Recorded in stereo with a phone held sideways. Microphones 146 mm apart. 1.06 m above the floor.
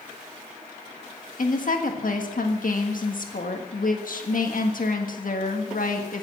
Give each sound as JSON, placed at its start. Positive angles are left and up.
{"t": 1.4, "sound": "a woman speaking", "side_deg": 70, "distance_m": 1.5}